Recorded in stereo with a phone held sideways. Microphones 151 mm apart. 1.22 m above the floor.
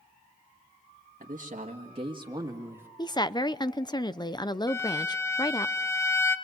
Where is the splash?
No splash in this recording.